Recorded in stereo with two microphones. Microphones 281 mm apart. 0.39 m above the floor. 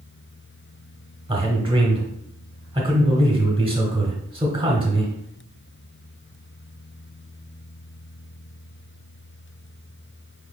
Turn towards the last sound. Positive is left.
turn(degrees=-20)  # may be behind; listen again after turning